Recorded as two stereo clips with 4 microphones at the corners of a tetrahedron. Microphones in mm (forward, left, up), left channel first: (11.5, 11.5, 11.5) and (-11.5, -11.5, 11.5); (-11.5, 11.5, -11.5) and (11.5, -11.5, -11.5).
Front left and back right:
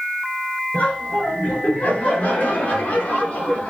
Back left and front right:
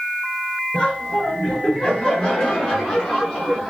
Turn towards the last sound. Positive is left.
turn(degrees=55)